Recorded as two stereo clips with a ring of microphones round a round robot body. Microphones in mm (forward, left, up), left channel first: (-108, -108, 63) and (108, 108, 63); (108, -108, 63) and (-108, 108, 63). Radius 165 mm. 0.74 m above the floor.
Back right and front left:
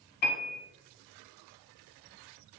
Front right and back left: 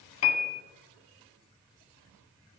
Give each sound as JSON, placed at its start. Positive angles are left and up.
{"t": 0.2, "sound": "a piano", "azimuth_deg": -80, "distance_m": 0.9}